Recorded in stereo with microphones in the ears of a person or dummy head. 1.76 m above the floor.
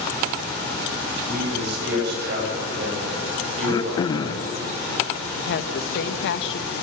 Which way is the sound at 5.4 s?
65° left (ahead or behind).